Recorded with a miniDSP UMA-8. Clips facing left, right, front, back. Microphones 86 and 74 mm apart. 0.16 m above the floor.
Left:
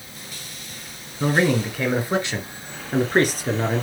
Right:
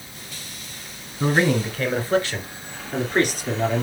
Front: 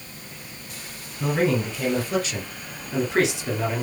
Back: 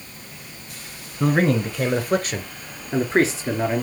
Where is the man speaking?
Straight behind, 1.9 m; by 3.8 s 125° left, 2 m.